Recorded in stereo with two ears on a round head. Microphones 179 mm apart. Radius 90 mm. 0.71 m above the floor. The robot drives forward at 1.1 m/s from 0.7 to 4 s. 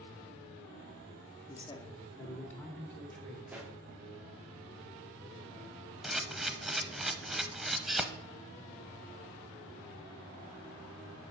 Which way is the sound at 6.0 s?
Centre (ahead or behind).